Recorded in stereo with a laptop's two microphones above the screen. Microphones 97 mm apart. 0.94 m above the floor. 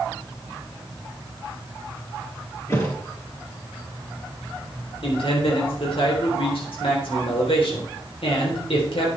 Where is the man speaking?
70° left (ahead or behind), 3.5 m.